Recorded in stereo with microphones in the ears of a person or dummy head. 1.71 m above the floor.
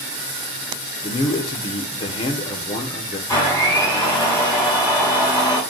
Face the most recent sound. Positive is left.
turn(degrees=15)  # may be behind; listen again after turning